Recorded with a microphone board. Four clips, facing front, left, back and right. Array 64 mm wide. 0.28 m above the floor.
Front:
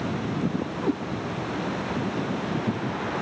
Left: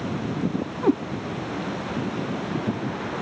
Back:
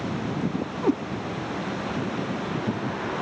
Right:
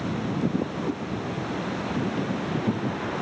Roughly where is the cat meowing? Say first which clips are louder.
Left 9 dB, back 4 dB; left.